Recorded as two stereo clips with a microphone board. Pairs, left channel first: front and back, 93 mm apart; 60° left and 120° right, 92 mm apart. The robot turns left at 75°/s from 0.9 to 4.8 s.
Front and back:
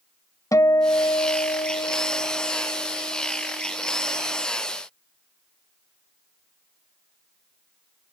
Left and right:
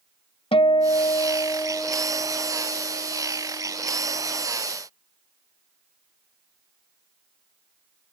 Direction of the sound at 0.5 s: 55° left.